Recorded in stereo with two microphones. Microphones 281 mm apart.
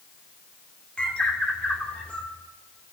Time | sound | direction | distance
1.0 | a bird | 5° left (ahead or behind) | 3 m